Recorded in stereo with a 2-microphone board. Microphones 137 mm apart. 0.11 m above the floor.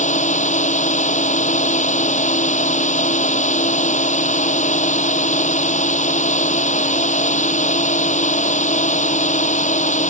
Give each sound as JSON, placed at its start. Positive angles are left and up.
{"t": 0.0, "sound": "a drone", "side_deg": 55}